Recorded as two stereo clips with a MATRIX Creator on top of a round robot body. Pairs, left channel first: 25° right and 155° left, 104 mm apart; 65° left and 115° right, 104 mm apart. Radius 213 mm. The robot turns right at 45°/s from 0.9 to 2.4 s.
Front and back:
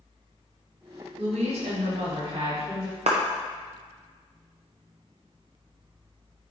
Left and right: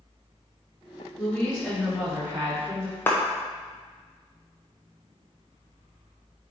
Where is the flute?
No flute in this recording.